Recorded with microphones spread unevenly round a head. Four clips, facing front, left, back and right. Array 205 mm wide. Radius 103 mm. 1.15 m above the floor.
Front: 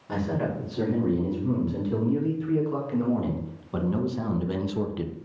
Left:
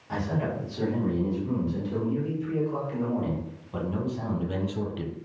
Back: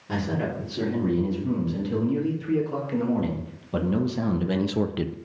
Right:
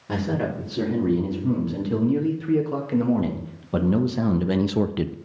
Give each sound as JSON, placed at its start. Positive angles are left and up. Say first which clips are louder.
{"t": 0.1, "sound": "a man speaking", "louder": "right 4 dB, even", "azimuth_deg": -100, "distance_m": 3.0}